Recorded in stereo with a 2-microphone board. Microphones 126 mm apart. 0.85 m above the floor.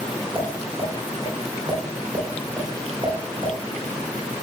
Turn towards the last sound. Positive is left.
turn(degrees=-40)  # may be behind; listen again after turning